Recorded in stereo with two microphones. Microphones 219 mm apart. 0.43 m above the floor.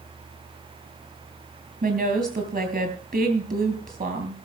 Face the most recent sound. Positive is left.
turn(degrees=-40)  # may be behind; listen again after turning